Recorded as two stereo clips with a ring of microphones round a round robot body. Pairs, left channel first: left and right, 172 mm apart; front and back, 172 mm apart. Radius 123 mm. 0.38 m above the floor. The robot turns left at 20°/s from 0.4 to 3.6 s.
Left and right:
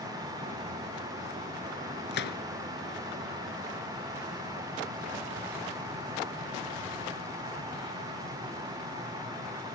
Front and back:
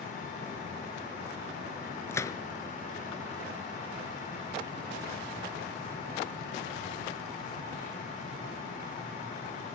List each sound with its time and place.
2.1 s a gunshot: 75° left, 1.3 m; by 2.4 s 70° left, 1.3 m